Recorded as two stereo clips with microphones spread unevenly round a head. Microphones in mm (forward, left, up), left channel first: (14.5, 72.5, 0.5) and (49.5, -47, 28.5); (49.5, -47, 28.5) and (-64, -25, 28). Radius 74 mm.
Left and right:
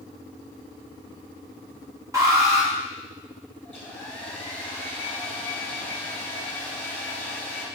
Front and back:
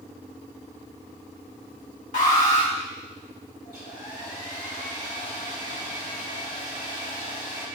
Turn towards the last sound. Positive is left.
turn(degrees=20)